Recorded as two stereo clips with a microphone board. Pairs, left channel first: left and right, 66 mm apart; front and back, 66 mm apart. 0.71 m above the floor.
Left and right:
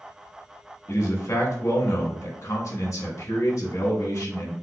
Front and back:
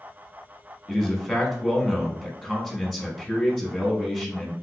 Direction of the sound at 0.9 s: 80° left.